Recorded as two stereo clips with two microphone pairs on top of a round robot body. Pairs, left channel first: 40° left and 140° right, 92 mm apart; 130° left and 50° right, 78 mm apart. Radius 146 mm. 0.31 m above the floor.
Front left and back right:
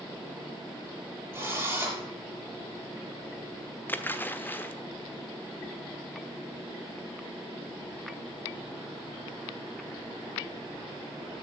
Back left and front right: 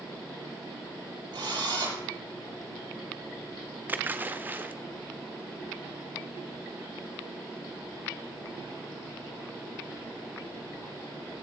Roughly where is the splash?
Ahead.